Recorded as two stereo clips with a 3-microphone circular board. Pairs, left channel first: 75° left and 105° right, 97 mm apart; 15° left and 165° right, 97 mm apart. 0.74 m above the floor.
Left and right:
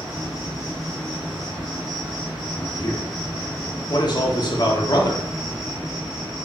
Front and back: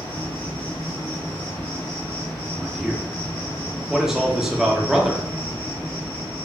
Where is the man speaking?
110° left, 1.0 m.